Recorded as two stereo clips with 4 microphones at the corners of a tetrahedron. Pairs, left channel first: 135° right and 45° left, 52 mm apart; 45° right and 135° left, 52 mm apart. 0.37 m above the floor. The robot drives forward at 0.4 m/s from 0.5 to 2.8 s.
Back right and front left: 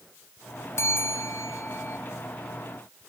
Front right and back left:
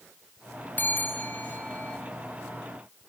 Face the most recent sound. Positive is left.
turn(degrees=-115)